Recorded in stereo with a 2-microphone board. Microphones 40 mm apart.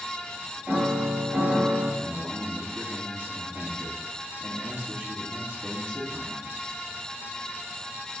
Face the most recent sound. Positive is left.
turn(degrees=-55)  # may be behind; listen again after turning